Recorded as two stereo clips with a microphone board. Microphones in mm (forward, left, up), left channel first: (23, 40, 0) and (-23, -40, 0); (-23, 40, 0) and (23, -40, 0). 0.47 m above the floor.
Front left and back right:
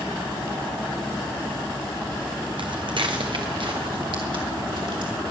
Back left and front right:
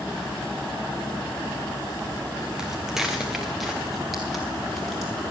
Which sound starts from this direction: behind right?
Footsteps, at 2.6 s.